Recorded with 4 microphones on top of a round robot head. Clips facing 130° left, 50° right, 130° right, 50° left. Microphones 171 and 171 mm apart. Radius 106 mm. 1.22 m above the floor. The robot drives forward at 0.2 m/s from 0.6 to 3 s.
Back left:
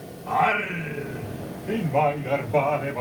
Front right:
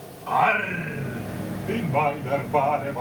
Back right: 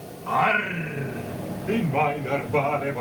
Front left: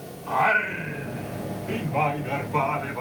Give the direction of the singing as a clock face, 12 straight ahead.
5 o'clock.